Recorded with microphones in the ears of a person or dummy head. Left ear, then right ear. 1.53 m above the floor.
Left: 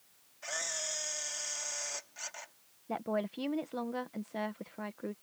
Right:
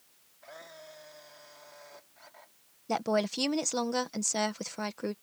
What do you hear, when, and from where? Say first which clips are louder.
0.4 s a camera shutter: left 11 dB; 70° left (ahead or behind)
2.9 s a woman speaking: right 6 dB; 85° right